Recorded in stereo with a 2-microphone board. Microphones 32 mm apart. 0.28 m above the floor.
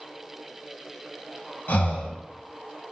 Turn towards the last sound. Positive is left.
turn(degrees=85)